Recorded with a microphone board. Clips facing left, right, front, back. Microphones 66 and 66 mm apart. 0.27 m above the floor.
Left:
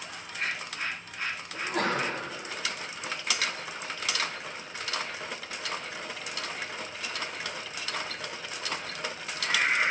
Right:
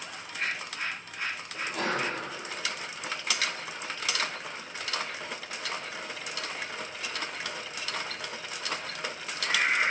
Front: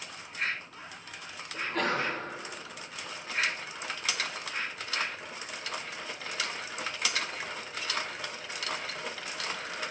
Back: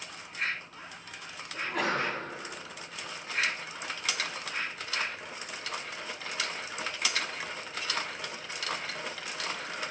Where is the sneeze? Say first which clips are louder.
Left 2 dB, even; 100° left, 1.5 m.